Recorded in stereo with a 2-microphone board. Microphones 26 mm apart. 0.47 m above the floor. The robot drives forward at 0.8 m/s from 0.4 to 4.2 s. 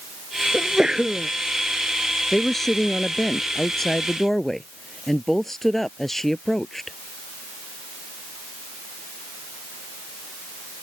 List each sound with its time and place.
0.5 s a sneeze: 25° right (ahead or behind)
2.3 s a woman speaking: 10° left (ahead or behind)